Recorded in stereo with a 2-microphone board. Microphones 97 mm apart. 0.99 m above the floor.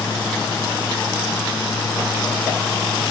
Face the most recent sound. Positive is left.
No sound to turn to.